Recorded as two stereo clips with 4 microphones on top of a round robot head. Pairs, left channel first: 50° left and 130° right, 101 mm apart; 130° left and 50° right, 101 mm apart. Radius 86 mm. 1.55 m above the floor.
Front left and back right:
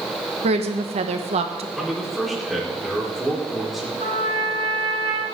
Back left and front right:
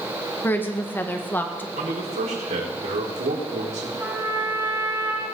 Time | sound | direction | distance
0.4 | a woman speaking | 155° right | 1.6 m
1.8 | a man speaking | 40° right | 4.5 m
4.0 | a trumpet | 115° right | 4 m